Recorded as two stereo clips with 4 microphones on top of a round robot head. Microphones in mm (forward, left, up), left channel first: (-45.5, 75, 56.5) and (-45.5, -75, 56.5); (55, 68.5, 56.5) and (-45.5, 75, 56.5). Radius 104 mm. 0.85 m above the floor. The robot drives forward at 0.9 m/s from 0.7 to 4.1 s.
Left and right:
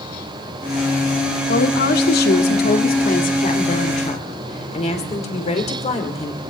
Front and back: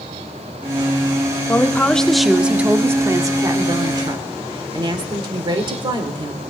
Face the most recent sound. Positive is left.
turn(degrees=135)